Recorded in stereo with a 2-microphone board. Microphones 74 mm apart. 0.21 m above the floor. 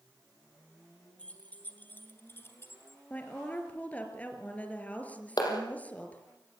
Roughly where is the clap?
Left.